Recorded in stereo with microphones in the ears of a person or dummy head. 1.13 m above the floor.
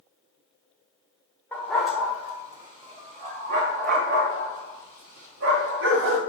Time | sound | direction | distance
1.5 | a dog barking | 5° left (ahead or behind) | 1.0 m